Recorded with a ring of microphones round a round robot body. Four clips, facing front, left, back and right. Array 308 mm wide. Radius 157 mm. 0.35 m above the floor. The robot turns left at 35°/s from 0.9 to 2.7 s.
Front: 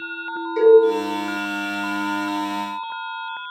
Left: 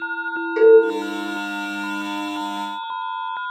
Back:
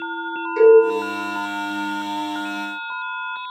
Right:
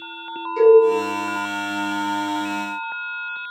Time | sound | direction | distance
0.6 | a cowbell | 95° left | 1.0 m